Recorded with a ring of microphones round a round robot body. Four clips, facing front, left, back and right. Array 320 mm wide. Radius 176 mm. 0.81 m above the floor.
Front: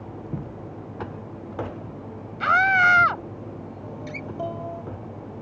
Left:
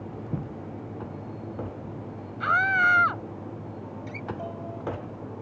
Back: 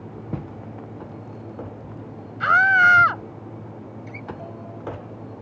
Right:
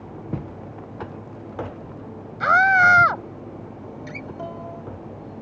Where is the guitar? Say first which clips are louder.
Even, front 2 dB; 25° right.